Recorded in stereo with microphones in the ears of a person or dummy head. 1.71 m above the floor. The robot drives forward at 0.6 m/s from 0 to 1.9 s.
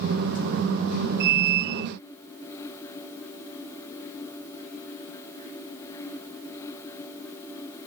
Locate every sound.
Only background noise.